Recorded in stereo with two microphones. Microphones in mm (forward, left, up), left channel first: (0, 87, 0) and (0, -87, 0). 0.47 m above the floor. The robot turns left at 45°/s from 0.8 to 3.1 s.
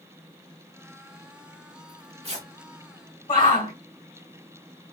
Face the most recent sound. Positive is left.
turn(degrees=45)  # may be behind; listen again after turning